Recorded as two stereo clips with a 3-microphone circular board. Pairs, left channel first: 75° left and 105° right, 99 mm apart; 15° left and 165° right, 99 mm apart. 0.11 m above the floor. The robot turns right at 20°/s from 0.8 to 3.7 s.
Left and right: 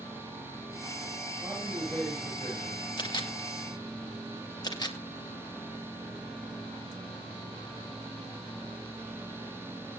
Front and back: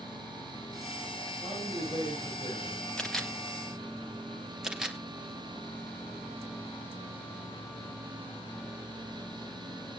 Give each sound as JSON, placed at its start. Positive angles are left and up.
{"t": 1.4, "sound": "a man speaking", "azimuth_deg": -40, "distance_m": 9.5}
{"t": 3.0, "sound": "a camera shutter", "azimuth_deg": 100, "distance_m": 2.5}